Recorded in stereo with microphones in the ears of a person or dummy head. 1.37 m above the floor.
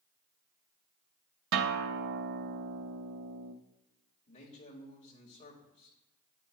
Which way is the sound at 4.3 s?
30° left (ahead or behind).